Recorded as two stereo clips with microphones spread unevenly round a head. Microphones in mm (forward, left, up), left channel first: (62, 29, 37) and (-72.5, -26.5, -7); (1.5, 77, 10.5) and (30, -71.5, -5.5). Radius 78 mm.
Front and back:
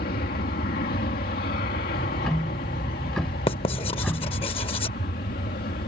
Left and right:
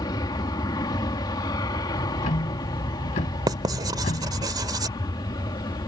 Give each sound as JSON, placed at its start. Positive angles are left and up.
{"t": 0.0, "sound": "an aircraft", "azimuth_deg": 40}
{"t": 1.9, "sound": "ticking", "azimuth_deg": 95}
{"t": 3.5, "sound": "writing", "azimuth_deg": -15}